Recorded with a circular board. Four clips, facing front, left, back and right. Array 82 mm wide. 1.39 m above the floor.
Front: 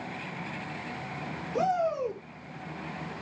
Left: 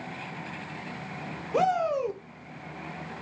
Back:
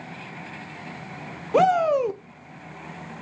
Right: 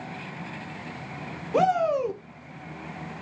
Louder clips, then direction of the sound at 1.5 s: Right 3 dB, back 9 dB; 170° right.